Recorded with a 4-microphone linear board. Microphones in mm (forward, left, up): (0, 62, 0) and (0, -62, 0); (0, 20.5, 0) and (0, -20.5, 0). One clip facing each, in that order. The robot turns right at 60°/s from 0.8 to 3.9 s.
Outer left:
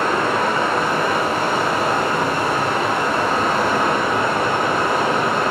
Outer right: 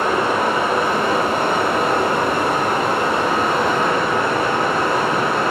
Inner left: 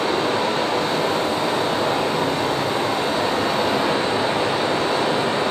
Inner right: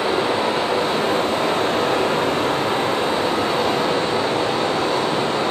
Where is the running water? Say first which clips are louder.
Outer right 1 dB, inner right 1 dB; 165° right, 1.4 m; by 5.5 s 20° left, 1.4 m.